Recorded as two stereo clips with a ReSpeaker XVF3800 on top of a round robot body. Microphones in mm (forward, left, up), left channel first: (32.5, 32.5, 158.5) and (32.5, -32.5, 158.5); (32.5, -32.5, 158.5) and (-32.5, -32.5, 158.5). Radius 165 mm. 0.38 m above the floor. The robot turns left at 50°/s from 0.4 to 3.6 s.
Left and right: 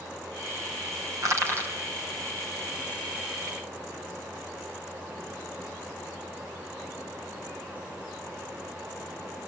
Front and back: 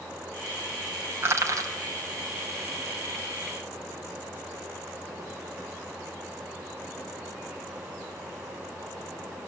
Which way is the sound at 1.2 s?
125° right.